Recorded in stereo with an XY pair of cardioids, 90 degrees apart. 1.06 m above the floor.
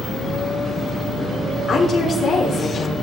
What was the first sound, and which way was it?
A woman speaking, 60° left.